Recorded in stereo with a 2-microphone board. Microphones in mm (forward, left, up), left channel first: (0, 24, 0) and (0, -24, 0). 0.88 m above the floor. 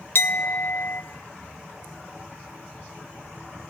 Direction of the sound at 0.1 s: 55° left (ahead or behind).